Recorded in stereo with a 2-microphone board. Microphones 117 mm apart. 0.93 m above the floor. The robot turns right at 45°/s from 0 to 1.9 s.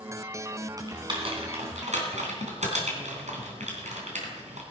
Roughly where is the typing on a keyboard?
Right.